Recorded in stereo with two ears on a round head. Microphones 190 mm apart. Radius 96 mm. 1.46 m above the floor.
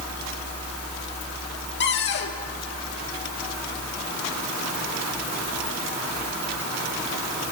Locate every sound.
1.8 s a cupboard door: 50° left (ahead or behind), 1.8 m